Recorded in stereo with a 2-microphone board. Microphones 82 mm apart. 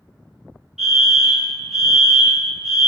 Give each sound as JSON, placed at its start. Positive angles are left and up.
{"t": 0.8, "sound": "a fire alarm", "side_deg": -5, "distance_m": 1.8}